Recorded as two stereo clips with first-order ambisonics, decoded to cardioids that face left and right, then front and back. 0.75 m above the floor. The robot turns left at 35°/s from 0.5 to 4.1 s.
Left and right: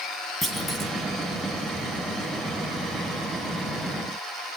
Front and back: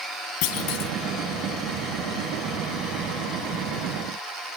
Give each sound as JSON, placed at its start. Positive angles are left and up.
{"t": 0.4, "sound": "a clunk", "azimuth_deg": 5, "distance_m": 1.9}